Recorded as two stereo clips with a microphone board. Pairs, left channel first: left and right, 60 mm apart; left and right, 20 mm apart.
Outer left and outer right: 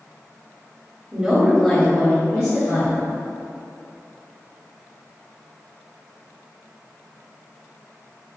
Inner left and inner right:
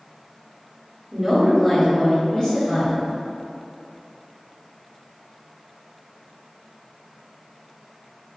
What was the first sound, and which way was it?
A woman speaking, 20° right (ahead or behind).